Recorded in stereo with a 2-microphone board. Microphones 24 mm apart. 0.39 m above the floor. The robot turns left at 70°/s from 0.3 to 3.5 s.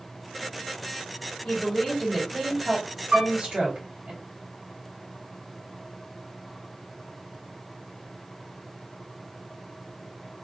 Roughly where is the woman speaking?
Left.